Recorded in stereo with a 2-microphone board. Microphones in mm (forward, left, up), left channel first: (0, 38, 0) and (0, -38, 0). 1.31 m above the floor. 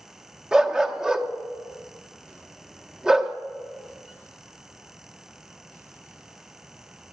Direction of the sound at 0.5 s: 10° right (ahead or behind).